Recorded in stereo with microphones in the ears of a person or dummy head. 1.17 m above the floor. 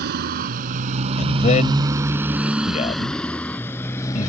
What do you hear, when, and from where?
0.0 s a motorcycle: 60° right (ahead or behind); by 4.3 s 15° left (ahead or behind)
1.2 s a man speaking: 35° left (ahead or behind)